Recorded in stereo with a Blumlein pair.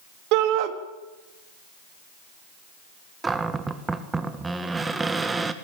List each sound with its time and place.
0.3 s a shout: 40° right, 2.5 m
3.2 s a cupboard door: 10° right, 1.7 m